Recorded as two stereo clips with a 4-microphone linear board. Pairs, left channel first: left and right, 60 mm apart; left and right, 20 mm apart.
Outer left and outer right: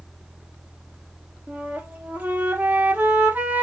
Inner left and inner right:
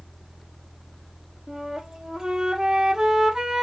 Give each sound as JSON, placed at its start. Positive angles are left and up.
{"t": 1.5, "sound": "a flute", "side_deg": -30, "distance_m": 0.9}